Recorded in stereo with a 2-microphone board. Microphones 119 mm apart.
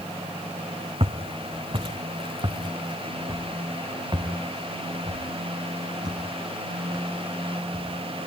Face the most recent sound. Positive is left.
turn(degrees=-30)  # may be behind; listen again after turning